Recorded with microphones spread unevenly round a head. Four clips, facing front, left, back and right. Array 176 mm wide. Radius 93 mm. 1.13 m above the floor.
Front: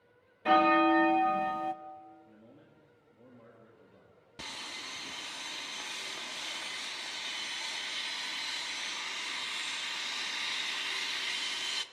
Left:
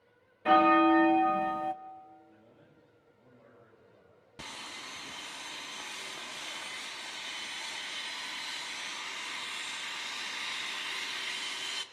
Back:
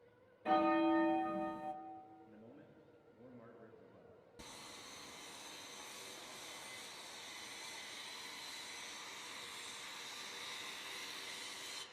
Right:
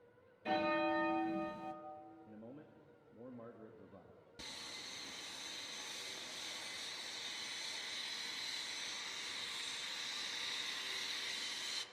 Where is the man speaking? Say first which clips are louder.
Right 5 dB, front 1 dB; 95° right, 1.7 m.